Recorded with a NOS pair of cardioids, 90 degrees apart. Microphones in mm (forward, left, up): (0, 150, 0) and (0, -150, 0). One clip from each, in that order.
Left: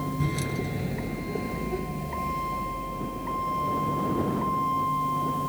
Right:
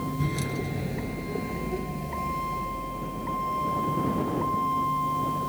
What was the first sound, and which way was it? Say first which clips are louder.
A vehicle: even; 5° left.